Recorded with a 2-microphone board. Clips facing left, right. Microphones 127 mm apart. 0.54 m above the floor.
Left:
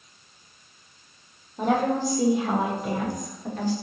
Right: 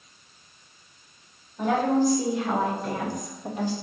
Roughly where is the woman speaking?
Left.